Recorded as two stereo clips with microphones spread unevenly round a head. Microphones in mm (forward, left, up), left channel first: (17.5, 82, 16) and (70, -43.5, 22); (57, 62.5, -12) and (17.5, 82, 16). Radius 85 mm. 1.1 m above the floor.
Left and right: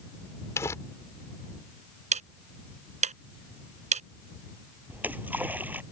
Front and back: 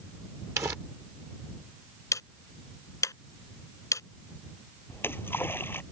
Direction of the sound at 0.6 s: 170° right.